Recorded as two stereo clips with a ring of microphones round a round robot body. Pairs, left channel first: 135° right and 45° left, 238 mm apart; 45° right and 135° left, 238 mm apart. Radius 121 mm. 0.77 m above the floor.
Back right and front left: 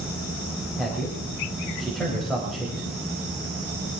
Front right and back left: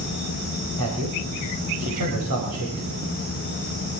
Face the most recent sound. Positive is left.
turn(degrees=135)